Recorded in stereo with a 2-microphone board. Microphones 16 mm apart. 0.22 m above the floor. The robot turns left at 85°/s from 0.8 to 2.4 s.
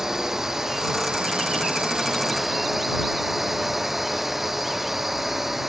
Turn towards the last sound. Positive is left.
turn(degrees=-165)